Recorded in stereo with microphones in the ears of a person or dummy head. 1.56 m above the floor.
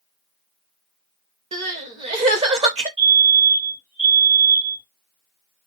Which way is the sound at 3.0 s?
40° right (ahead or behind).